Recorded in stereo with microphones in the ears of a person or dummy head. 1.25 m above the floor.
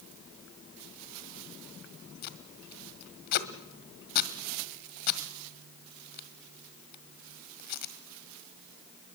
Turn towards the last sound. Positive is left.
turn(degrees=50)  # may be behind; listen again after turning